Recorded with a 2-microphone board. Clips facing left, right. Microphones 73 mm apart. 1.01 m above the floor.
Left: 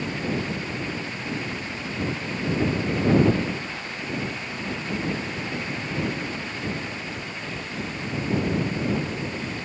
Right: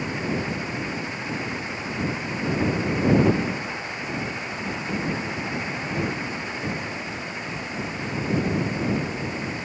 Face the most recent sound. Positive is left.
No sound to turn to.